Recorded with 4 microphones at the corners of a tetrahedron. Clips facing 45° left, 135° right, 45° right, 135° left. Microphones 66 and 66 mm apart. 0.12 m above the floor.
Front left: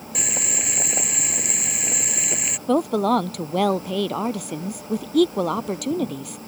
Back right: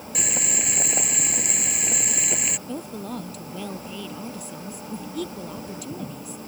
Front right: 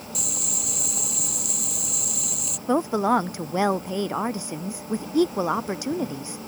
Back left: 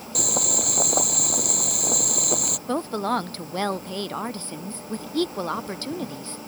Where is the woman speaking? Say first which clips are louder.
Front left 18 dB, front right 4 dB; 30° left.